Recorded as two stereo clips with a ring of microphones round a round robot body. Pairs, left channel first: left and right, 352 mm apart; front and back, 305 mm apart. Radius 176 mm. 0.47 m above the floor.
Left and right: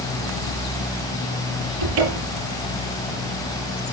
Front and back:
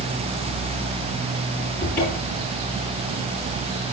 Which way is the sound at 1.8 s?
85° right.